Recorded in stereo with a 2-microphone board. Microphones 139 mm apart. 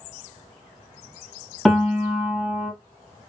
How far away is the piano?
About 0.9 m.